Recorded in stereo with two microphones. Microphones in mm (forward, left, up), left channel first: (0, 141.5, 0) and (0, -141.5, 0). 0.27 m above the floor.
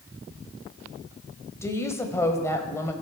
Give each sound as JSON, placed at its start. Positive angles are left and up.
{"t": 1.6, "sound": "a woman speaking", "side_deg": 10, "distance_m": 0.9}